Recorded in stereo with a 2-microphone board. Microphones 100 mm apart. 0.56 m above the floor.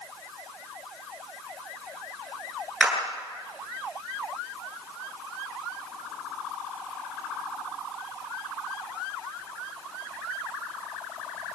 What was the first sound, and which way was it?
A clap, 15° right (ahead or behind).